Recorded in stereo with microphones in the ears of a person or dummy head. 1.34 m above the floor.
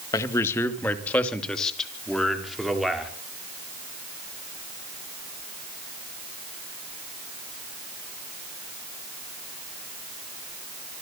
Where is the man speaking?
15° left (ahead or behind), 2 m; by 3.1 s 5° right (ahead or behind), 4.5 m.